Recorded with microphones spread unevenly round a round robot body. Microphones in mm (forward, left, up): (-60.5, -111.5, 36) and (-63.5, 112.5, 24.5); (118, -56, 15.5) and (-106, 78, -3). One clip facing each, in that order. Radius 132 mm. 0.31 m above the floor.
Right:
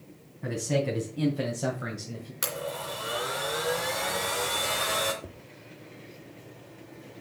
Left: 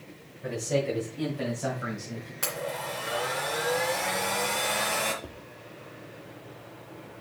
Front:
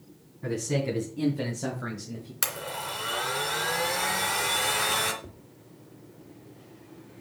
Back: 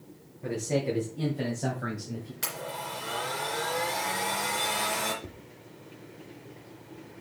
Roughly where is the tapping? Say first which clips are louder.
Left 1 dB, back 2 dB; behind.